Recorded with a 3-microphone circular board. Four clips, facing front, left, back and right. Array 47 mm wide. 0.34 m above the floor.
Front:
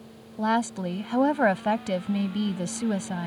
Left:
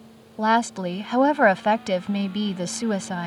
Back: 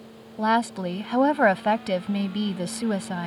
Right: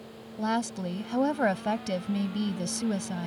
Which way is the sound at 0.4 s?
115° left.